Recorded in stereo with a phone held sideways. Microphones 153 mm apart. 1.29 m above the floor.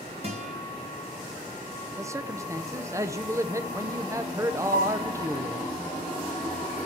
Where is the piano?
75° right (ahead or behind), 3.5 m.